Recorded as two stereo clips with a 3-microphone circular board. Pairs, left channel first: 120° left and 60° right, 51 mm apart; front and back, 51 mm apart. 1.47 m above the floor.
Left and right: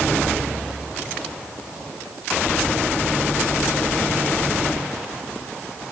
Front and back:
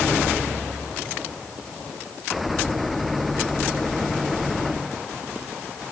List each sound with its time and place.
Only background noise.